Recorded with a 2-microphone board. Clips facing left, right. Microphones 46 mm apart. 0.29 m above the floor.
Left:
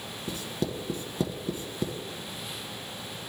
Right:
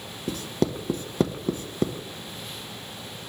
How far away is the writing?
About 0.9 m.